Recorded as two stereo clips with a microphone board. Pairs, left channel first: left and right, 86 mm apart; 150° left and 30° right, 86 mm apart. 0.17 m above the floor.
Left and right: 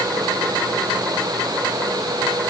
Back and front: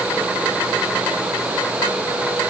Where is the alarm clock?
I don't hear an alarm clock.